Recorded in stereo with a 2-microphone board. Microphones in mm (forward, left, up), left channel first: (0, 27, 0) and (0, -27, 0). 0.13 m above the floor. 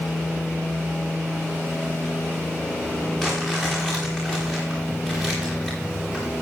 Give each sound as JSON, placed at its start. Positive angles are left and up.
{"t": 3.2, "sound": "crumpling", "side_deg": 5, "distance_m": 10.0}